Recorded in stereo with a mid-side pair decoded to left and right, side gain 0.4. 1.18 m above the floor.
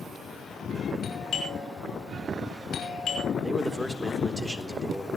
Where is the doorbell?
65° left, 5.5 m.